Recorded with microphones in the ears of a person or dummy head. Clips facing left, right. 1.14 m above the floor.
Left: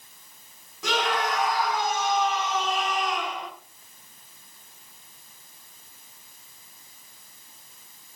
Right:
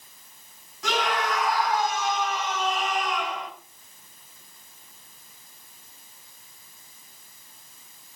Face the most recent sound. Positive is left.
turn(degrees=90)